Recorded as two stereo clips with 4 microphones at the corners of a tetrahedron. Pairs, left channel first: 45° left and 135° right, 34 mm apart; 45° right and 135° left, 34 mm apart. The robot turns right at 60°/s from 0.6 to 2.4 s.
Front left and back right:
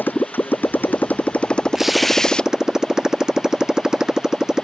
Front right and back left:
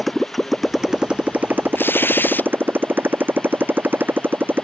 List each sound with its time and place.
0.0 s a motorcycle: 45° left; by 4.6 s 155° left
1.8 s tearing paper: 55° right; by 2.5 s 20° right